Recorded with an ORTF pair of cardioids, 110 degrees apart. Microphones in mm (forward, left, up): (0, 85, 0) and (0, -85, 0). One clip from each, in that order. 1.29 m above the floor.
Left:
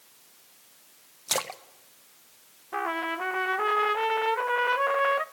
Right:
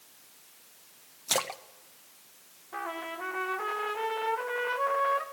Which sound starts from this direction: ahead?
A splash, at 1.3 s.